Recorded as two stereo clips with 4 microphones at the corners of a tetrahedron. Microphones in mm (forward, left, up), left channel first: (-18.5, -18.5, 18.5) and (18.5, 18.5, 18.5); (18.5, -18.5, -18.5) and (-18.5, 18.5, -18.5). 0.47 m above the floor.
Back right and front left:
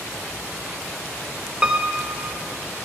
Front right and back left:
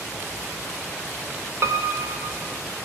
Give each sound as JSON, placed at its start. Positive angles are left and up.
{"t": 1.6, "sound": "a piano", "azimuth_deg": 115, "distance_m": 0.5}